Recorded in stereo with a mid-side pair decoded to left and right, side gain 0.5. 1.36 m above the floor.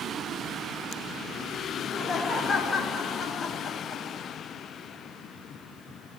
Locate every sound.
1.8 s laughter: 40° left, 3 m; by 4.2 s 55° left, 4.5 m